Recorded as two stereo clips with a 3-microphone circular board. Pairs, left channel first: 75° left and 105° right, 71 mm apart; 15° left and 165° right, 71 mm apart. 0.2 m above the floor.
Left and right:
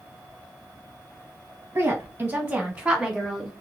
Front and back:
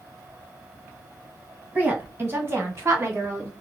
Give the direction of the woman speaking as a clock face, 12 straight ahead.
4 o'clock.